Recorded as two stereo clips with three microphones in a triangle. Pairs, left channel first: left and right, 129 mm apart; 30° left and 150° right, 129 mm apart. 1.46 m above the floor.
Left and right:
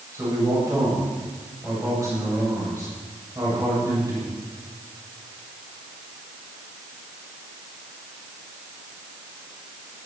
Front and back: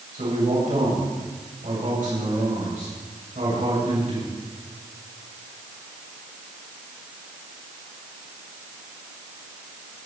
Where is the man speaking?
155° right, 8.5 m.